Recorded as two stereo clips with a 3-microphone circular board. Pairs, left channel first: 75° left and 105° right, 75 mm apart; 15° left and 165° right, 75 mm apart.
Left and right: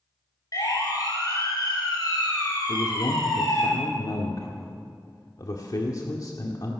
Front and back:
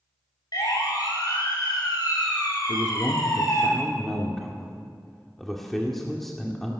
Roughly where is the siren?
Ahead left.